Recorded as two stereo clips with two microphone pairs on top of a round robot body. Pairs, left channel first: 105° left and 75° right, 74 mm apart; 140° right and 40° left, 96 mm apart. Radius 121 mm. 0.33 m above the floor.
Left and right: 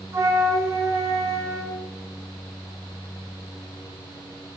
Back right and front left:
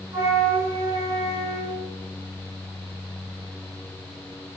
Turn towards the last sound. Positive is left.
turn(degrees=-20)